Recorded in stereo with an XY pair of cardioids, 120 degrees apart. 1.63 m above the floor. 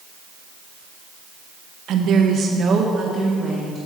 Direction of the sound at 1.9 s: 65° right.